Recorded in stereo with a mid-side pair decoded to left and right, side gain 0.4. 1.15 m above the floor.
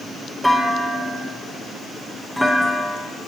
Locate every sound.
0.4 s a clunk: 5° right, 1.4 m